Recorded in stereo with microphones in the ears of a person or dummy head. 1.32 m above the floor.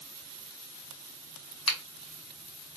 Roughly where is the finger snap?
Left.